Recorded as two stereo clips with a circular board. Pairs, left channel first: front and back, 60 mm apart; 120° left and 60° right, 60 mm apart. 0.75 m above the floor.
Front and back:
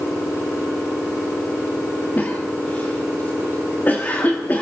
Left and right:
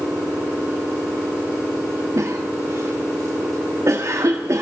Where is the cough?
55° right, 1.7 m.